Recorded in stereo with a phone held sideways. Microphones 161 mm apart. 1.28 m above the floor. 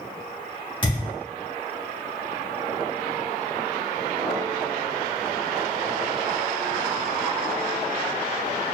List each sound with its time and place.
0.8 s a thud: 35° left (ahead or behind), 1.0 m